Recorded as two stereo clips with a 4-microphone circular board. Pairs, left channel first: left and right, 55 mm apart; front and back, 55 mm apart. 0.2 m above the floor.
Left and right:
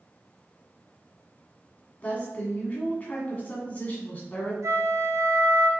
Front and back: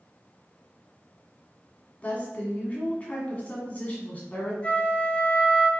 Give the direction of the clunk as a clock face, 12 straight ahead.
I don't hear a clunk.